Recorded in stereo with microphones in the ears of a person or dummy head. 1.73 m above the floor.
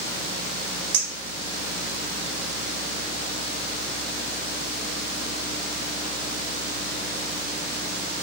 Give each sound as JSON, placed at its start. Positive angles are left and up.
{"t": 0.9, "sound": "a clink", "side_deg": -55, "distance_m": 1.2}